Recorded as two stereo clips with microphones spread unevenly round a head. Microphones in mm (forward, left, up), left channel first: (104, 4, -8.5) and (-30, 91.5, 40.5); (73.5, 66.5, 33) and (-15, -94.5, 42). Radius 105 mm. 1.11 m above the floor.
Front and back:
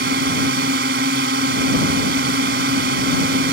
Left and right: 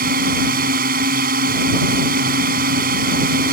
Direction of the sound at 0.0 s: 170° right.